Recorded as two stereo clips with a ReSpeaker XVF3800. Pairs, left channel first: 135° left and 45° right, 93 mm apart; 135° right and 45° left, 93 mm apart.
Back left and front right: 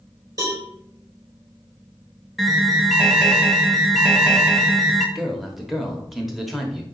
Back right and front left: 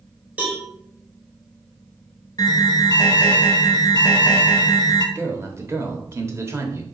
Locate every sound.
0.4 s a cowbell: 20° right, 1.7 m
2.4 s an alarm: 135° right, 0.9 m
5.2 s a man speaking: 40° left, 0.9 m